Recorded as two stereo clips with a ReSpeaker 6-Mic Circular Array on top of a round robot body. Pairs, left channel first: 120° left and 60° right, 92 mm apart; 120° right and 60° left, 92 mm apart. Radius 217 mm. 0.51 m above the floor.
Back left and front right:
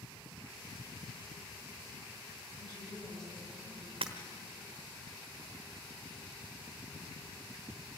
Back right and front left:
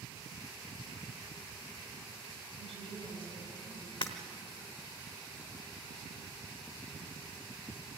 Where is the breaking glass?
90° right, 1.0 m.